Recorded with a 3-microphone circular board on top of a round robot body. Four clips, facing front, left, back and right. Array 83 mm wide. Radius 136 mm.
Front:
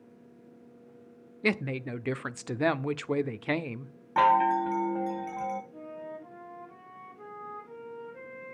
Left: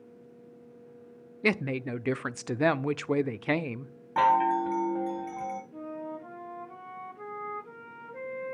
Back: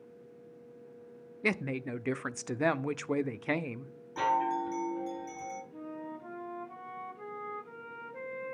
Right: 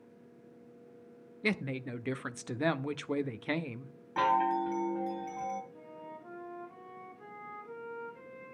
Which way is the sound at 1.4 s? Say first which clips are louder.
Left 6 dB, front 3 dB; 75° left.